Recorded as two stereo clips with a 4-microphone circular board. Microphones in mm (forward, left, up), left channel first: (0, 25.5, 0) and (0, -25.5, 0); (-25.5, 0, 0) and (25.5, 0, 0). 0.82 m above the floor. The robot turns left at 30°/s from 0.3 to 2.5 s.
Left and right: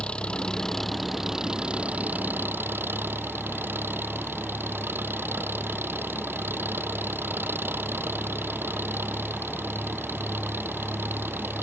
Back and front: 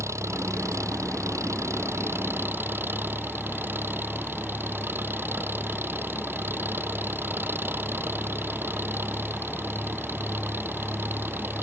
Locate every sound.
0.0 s an engine running: 20° left; by 11.6 s 45° right